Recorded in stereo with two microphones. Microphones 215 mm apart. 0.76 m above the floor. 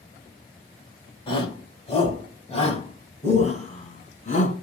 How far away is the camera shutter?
No camera shutter in this recording.